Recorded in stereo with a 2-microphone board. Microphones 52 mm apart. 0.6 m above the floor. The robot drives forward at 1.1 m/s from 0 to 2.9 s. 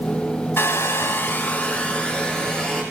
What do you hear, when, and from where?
0.6 s a hair dryer: 50° left (ahead or behind), 0.7 m; by 2.8 s 15° left (ahead or behind), 2.5 m